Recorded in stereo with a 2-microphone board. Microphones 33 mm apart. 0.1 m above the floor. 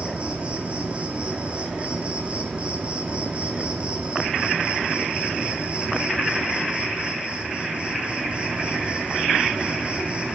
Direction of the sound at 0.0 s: 40° right (ahead or behind).